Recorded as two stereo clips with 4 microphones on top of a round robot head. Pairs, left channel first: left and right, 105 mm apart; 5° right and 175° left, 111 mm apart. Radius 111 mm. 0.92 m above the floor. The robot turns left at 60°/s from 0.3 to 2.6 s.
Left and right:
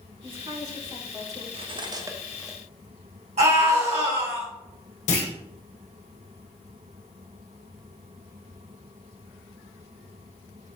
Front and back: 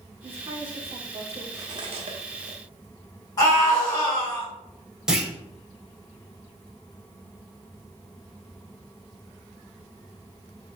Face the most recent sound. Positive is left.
turn(degrees=90)